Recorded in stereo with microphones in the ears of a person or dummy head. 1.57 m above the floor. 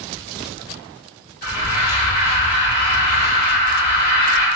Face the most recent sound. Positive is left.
turn(degrees=50)  # may be behind; listen again after turning